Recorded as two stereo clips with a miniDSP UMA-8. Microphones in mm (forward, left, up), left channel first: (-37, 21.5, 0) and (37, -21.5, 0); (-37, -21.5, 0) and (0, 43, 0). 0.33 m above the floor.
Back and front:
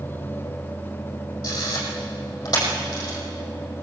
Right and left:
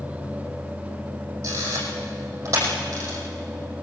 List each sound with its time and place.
1.4 s a camera shutter: 115° left, 6 m